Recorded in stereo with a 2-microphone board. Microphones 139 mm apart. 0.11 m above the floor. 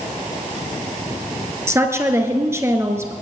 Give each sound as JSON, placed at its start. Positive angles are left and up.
{"t": 1.7, "sound": "a woman speaking", "side_deg": -20, "distance_m": 1.5}